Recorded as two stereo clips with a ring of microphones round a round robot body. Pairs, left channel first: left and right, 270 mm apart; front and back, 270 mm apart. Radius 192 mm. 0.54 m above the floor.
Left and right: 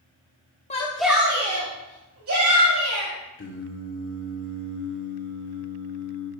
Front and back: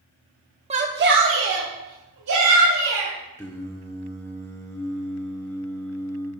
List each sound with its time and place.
0.7 s a shout: 130° left, 0.8 m; by 3.1 s 135° right, 3 m
3.4 s singing: 80° left, 1.7 m